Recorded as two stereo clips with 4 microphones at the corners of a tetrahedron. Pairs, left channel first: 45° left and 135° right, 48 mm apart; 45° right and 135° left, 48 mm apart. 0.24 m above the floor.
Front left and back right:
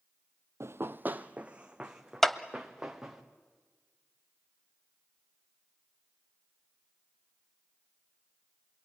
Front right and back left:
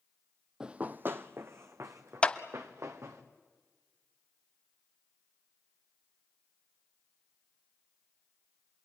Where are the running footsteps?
150° right, 0.5 m; by 3.2 s 145° left, 2.5 m.